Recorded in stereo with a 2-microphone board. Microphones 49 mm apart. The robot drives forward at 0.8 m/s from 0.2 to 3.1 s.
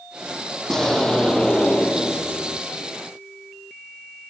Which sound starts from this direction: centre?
An explosion, at 0.7 s.